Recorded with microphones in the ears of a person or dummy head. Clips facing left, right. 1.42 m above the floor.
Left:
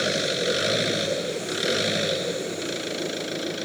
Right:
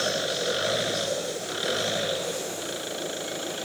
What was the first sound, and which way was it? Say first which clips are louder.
An engine running: left 3 dB; 30° left (ahead or behind).